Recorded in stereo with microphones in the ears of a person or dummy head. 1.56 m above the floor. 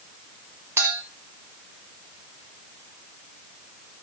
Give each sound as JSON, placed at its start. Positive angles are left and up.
{"t": 0.8, "sound": "a clink", "side_deg": -10, "distance_m": 0.7}